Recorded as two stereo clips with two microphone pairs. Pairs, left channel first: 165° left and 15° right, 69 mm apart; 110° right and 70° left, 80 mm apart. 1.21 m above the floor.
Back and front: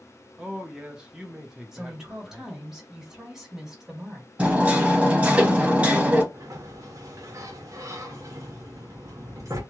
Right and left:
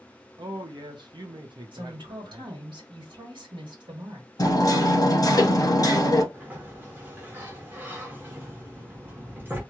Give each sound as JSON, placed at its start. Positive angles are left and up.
{"t": 0.4, "sound": "a man speaking", "azimuth_deg": 60, "distance_m": 0.6}
{"t": 1.7, "sound": "a woman speaking", "azimuth_deg": 65, "distance_m": 1.6}
{"t": 4.4, "sound": "hammering", "azimuth_deg": -85, "distance_m": 0.8}
{"t": 6.3, "sound": "a sliding door", "azimuth_deg": 10, "distance_m": 1.0}